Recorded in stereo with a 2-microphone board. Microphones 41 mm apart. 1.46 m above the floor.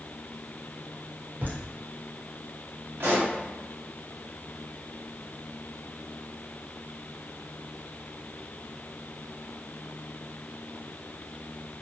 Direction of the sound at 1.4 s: 55° right (ahead or behind).